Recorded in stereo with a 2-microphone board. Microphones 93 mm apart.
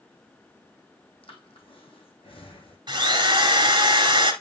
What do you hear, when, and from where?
1.2 s breathing: 70° left (ahead or behind), 2.5 m
2.9 s a drill: 50° right (ahead or behind), 2 m